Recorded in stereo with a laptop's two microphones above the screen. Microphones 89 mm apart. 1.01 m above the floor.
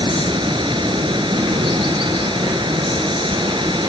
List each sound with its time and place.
0.0 s running water: 65° right (ahead or behind)